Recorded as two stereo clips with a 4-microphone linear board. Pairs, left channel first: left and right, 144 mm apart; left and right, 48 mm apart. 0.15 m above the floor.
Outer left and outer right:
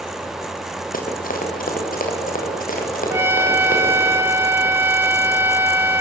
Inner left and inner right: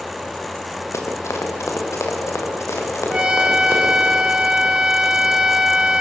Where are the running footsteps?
80° left, 5 m; by 4.1 s 75° left (ahead or behind), 9 m.